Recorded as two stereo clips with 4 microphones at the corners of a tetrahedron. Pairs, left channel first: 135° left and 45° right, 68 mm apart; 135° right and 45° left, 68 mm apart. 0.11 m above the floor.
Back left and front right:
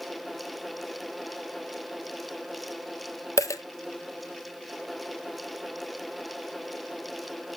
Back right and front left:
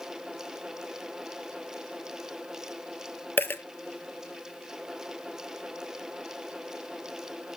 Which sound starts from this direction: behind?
A dropped coin, at 3.4 s.